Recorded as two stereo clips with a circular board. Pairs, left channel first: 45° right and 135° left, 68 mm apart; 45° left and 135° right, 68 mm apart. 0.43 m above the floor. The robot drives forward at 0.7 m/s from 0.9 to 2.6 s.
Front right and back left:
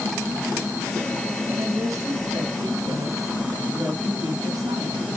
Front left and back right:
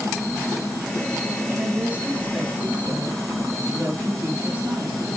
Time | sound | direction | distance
1.5 | a woman speaking | 155° left | 4 m